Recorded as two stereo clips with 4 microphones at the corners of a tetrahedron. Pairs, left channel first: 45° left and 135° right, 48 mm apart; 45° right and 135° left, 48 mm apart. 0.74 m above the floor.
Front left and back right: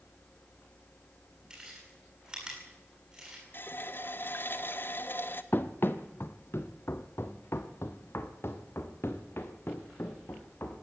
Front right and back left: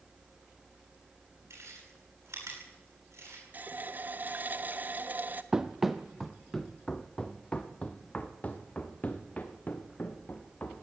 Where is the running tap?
85° left, 1.0 m.